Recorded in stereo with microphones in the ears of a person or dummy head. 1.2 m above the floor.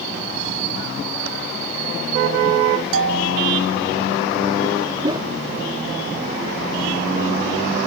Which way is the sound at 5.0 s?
20° right (ahead or behind).